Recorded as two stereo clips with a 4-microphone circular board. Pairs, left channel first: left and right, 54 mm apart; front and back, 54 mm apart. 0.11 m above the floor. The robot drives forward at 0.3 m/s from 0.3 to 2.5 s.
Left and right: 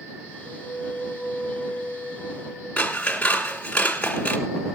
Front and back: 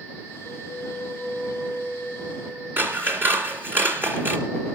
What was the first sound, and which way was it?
A flute, 95° right.